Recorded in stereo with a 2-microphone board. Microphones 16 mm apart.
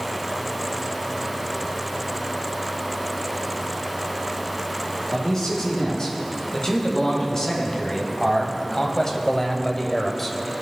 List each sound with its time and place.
5.1 s a man speaking: 40° left (ahead or behind), 4 m; by 10.6 s 5° left (ahead or behind), 1.1 m